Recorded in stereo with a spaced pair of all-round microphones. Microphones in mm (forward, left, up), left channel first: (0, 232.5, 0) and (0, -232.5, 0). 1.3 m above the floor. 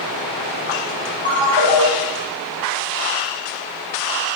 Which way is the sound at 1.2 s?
85° left.